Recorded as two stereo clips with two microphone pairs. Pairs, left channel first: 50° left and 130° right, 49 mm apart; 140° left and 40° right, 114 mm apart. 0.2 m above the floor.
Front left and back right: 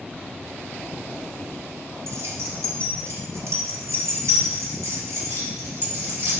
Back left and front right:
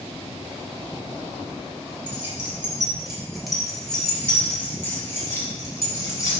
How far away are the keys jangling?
About 2.5 m.